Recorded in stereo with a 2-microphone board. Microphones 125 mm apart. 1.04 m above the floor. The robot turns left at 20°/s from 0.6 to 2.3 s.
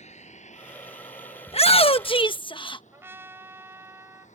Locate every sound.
0.0 s a vehicle: 65° left (ahead or behind); by 4.4 s 70° left (ahead or behind)
1.5 s a shout: 55° left (ahead or behind); by 2.8 s 40° left (ahead or behind)
2.9 s a trumpet: 20° right (ahead or behind)